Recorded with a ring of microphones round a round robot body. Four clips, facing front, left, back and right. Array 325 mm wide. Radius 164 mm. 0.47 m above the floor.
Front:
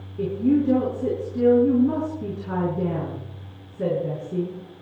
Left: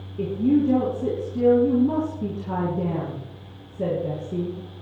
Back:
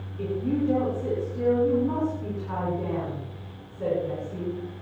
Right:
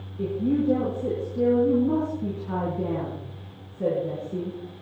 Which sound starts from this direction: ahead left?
A woman speaking, at 0.2 s.